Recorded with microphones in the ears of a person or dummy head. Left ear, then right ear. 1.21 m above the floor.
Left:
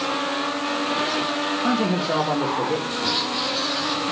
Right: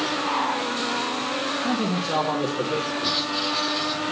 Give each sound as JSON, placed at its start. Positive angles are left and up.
{"t": 1.6, "sound": "a man speaking", "side_deg": 35, "distance_m": 1.8}
{"t": 3.0, "sound": "writing", "side_deg": 5, "distance_m": 5.0}